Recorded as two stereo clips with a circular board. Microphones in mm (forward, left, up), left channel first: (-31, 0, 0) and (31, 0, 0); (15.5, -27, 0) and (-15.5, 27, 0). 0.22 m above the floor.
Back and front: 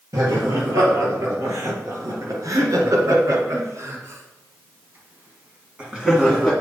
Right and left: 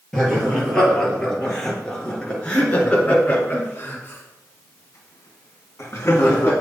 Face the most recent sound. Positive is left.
turn(degrees=-90)